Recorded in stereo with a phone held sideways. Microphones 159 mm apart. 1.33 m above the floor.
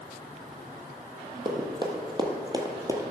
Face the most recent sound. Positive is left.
turn(degrees=-20)  # may be behind; listen again after turning